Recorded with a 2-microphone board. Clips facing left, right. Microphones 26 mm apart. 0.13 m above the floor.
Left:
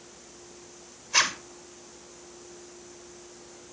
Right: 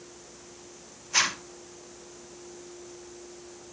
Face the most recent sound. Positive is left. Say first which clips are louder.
# left 1 dB
turn(degrees=5)  # may be behind; listen again after turning